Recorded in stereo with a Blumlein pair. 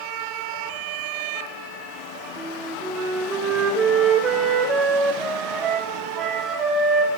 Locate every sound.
2.4 s a flute: 20° right, 2 m